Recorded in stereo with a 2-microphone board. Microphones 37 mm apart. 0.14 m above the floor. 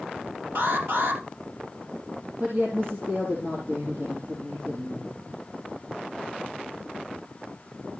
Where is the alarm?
70° right (ahead or behind), 3.5 m.